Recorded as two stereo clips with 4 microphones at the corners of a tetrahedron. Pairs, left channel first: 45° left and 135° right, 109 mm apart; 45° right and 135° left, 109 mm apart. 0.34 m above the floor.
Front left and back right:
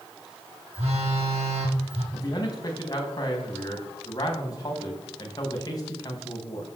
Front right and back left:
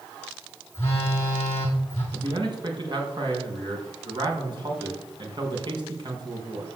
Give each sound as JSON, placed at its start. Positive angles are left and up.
{"t": 0.7, "sound": "a phone buzzing", "azimuth_deg": -110, "distance_m": 5.5}
{"t": 2.1, "sound": "a man speaking", "azimuth_deg": 95, "distance_m": 3.5}